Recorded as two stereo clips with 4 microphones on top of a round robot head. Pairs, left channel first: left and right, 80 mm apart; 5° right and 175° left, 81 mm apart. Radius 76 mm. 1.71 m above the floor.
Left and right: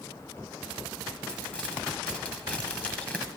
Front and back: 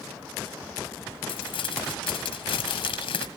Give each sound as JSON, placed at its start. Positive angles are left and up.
{"t": 1.3, "sound": "crumpling", "azimuth_deg": 10, "distance_m": 1.5}